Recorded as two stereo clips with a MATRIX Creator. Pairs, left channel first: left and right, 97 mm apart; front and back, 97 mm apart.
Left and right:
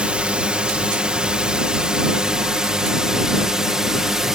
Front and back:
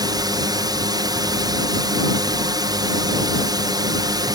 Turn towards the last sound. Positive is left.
turn(degrees=-175)